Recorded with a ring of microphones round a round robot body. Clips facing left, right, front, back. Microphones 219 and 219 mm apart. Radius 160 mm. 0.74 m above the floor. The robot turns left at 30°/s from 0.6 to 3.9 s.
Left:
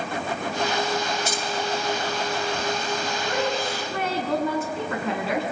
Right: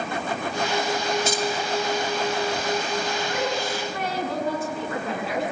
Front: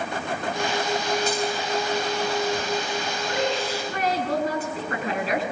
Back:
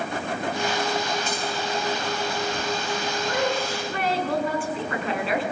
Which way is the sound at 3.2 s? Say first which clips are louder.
Left 1 dB, even; 70° left.